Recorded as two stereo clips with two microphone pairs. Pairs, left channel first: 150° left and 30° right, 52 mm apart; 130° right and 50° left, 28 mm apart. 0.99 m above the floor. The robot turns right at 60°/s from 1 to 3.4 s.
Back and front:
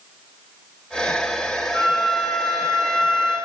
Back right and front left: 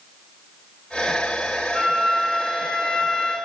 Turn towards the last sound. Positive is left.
turn(degrees=-95)